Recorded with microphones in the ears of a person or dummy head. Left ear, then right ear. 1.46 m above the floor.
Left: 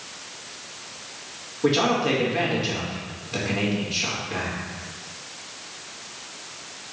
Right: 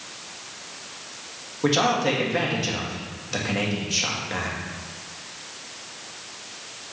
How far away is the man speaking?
About 2 m.